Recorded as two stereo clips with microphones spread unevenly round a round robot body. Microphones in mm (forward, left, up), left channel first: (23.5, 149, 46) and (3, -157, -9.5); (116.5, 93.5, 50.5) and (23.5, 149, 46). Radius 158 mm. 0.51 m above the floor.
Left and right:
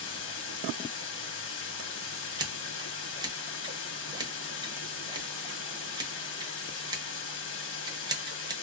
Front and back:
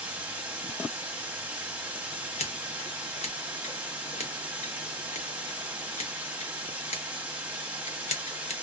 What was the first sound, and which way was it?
Running water, 95° left.